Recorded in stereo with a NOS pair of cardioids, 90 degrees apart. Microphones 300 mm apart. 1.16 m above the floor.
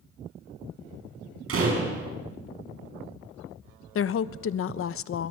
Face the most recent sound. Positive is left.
turn(degrees=45)